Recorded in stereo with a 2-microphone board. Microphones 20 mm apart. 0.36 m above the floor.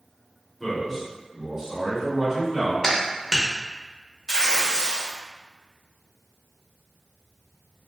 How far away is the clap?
About 0.6 m.